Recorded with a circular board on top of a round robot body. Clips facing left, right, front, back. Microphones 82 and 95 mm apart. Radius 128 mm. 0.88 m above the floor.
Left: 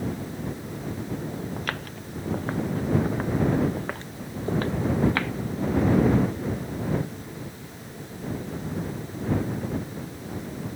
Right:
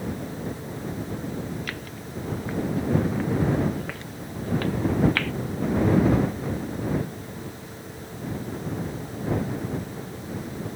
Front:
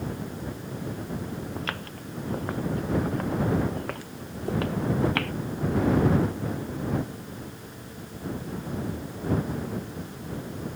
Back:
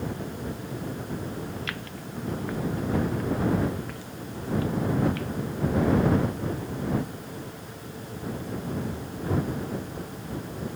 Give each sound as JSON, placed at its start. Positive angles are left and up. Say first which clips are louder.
{"t": 1.6, "sound": "footsteps", "louder": "left 2 dB, front 1 dB", "azimuth_deg": 50}